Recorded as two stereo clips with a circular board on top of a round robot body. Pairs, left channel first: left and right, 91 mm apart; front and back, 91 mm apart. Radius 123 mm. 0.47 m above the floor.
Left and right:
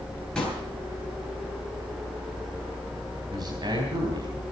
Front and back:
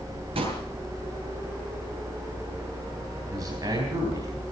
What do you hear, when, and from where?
0.3 s a pop: 175° left, 10 m
3.3 s a man speaking: 130° right, 4 m